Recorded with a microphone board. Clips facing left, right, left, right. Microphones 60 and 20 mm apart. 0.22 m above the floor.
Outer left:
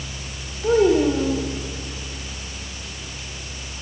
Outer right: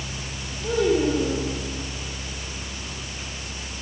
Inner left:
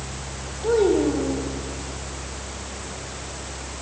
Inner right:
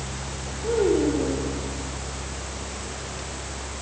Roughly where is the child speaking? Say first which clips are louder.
Outer left 5 dB, inner left 2 dB; left.